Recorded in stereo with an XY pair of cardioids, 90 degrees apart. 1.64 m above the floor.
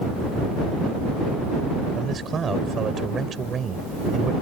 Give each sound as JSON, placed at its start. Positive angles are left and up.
{"t": 1.9, "sound": "a man speaking", "azimuth_deg": -50}